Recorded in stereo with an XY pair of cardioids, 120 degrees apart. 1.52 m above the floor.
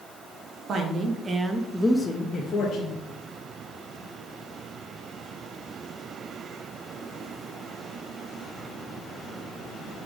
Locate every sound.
0.7 s a woman speaking: 50° right, 1.0 m; by 3.0 s 60° left, 1.1 m